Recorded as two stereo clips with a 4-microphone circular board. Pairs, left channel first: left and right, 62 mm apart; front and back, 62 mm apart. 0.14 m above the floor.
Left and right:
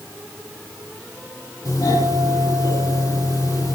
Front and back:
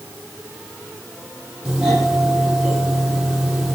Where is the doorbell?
100° left, 6 m.